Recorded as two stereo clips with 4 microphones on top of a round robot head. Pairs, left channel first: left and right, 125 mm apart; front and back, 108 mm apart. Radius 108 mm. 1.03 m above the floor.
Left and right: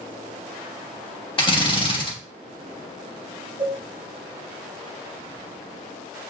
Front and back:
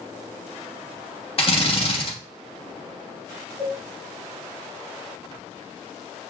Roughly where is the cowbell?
Behind.